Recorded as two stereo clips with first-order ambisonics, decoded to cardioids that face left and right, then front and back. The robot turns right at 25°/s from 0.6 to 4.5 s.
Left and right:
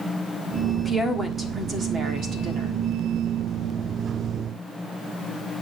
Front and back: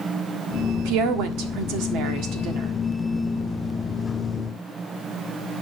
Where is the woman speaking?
175° right, 1.6 m; by 2.7 s 130° right, 1.6 m.